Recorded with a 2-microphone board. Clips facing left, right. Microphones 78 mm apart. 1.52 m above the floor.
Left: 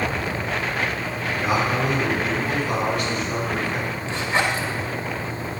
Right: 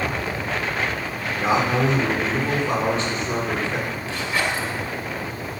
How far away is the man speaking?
About 5 m.